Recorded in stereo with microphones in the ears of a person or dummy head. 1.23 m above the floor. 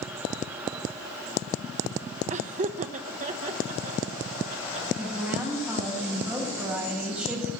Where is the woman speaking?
10° right (ahead or behind), 8.5 m.